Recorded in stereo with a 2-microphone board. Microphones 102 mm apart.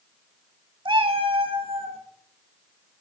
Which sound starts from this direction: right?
A cat meowing, at 0.8 s.